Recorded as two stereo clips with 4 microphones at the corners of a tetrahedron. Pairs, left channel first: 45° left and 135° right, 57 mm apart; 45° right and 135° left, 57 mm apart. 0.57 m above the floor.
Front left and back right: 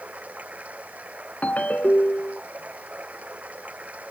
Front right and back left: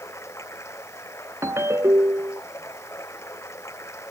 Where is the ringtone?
105° left.